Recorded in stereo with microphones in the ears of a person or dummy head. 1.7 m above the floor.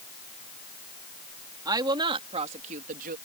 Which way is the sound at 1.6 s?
20° right (ahead or behind).